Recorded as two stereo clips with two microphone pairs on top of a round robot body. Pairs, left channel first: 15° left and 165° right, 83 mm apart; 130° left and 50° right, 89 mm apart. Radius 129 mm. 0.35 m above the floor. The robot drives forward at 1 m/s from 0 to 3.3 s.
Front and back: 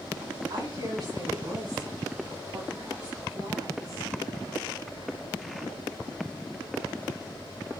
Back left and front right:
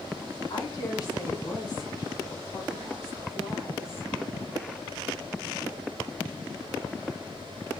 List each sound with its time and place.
0.5 s a woman speaking: 175° left, 4.5 m